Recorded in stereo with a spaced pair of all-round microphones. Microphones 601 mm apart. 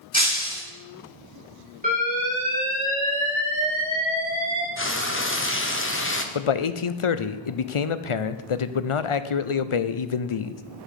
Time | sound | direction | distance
0.1 | breaking glass | 10° left (ahead or behind) | 3 m
1.8 | an alarm | 15° right (ahead or behind) | 4 m
4.8 | frying | 20° left (ahead or behind) | 0.8 m
6.3 | a man speaking | 55° left (ahead or behind) | 0.6 m